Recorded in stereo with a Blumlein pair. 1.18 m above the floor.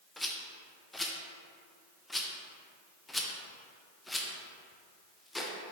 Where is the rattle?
10° left, 0.5 m.